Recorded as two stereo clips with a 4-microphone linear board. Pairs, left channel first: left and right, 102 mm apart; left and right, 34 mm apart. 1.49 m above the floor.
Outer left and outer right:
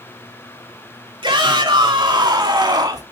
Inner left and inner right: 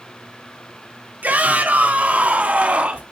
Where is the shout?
55° right (ahead or behind), 4.5 m; by 3.0 s 40° right (ahead or behind), 3 m.